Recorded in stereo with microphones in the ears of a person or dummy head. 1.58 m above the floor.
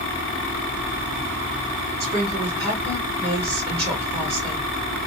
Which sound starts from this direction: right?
A woman speaking, at 2.0 s.